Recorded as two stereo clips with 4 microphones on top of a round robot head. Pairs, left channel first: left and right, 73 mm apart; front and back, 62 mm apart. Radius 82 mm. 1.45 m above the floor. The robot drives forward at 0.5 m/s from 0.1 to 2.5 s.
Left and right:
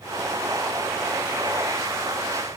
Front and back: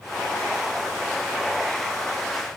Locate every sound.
Only background noise.